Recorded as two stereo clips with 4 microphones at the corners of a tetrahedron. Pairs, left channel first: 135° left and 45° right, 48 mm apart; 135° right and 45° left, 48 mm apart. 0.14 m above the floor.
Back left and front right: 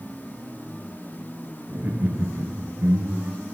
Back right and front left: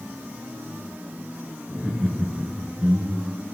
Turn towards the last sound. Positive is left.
turn(degrees=-25)